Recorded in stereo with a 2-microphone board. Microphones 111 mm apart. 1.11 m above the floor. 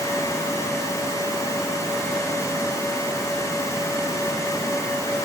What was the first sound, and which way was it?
Only background noise.